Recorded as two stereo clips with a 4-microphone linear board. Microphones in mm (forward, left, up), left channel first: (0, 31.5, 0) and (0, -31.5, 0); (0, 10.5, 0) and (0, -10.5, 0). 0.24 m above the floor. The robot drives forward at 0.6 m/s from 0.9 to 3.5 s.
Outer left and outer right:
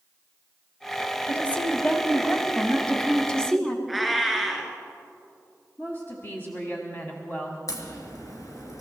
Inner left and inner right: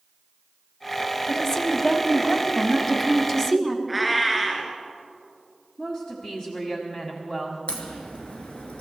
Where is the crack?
60° left (ahead or behind), 2.5 m.